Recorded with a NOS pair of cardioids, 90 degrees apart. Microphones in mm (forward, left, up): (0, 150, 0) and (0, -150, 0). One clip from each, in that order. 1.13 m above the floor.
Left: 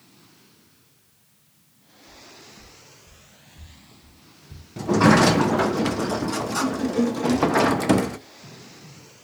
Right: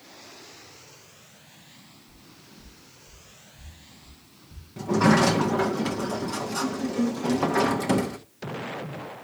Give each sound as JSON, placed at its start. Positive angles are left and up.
{"t": 2.1, "sound": "footsteps", "azimuth_deg": 45, "distance_m": 4.0}
{"t": 4.8, "sound": "a sliding door", "azimuth_deg": 25, "distance_m": 0.7}